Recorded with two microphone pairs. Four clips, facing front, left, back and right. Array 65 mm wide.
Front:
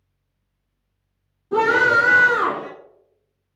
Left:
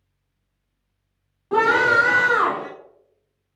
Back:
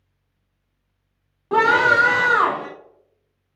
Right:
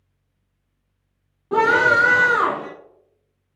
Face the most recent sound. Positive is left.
turn(degrees=170)